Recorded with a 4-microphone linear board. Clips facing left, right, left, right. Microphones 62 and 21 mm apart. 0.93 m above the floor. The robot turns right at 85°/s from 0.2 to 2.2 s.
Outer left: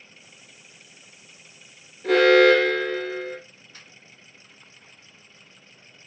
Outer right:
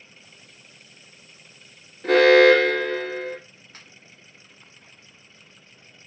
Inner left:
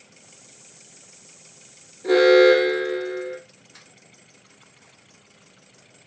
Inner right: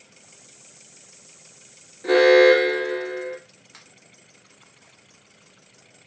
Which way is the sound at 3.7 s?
50° right (ahead or behind).